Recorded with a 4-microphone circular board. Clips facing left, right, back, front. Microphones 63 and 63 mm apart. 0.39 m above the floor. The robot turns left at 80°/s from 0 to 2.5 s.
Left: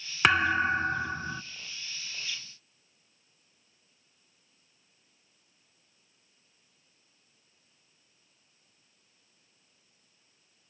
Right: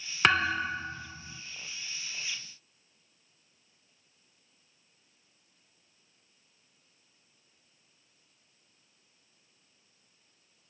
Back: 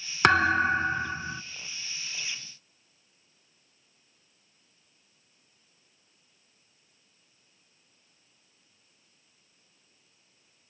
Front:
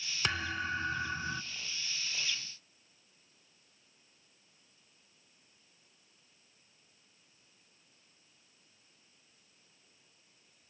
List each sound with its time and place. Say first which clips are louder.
0.2 s a thud: left 2 dB, back 14 dB; 175° left, 0.6 m; by 1.4 s 85° left, 0.6 m